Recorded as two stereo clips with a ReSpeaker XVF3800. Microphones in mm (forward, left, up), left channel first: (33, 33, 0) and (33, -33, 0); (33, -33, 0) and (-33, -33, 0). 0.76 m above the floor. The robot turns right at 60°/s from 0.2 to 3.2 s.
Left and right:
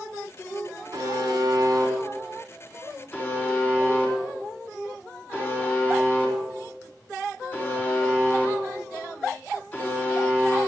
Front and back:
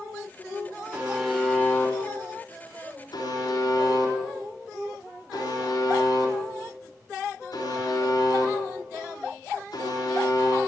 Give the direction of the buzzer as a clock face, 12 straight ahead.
4 o'clock.